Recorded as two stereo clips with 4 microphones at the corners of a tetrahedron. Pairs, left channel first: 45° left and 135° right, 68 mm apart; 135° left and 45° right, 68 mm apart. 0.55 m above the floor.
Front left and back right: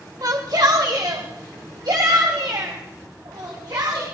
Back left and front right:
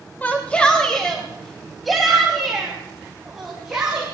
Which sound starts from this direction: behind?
A shout, at 0.2 s.